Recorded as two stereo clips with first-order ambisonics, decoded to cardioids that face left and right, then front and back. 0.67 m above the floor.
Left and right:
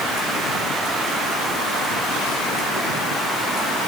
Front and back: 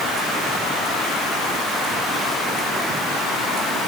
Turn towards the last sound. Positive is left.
No sound to turn to.